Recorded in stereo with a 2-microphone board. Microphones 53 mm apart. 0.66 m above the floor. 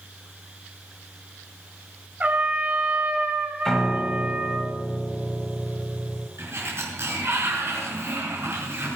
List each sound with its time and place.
2.2 s a trumpet: 30° right (ahead or behind), 2 m
3.6 s a piano: 10° left (ahead or behind), 1.8 m
6.4 s a sliding door: 55° right (ahead or behind), 5.5 m